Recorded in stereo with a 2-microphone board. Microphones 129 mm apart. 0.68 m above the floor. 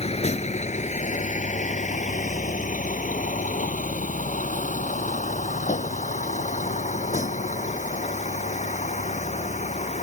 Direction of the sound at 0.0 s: 55° left (ahead or behind).